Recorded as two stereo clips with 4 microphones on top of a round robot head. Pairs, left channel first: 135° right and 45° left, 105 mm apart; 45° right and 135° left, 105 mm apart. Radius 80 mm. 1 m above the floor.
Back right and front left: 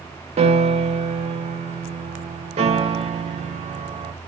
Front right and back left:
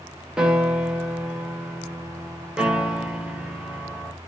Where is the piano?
55° left, 1.1 m.